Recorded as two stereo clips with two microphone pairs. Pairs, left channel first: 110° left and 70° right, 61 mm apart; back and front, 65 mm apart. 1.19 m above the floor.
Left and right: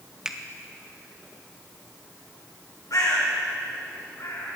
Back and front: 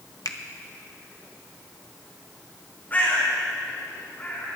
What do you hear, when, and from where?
0.2 s a finger snap: 155° right, 0.8 m
2.9 s a bird: 120° left, 5 m